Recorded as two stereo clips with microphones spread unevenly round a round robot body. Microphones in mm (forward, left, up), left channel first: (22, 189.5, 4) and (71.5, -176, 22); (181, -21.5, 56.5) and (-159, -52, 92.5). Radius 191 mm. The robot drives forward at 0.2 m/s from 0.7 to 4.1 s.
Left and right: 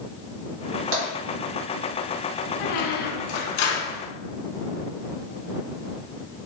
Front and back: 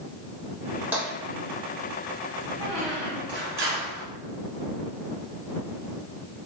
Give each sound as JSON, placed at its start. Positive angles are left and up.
{"t": 0.9, "sound": "tapping", "azimuth_deg": -90, "distance_m": 1.4}
{"t": 2.6, "sound": "a squeak", "azimuth_deg": 110, "distance_m": 0.6}